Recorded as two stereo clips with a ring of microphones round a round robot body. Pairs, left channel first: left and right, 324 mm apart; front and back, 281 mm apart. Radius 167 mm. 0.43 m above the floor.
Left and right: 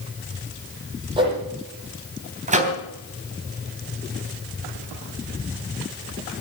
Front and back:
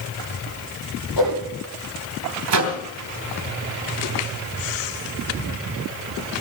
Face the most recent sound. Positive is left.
turn(degrees=-155)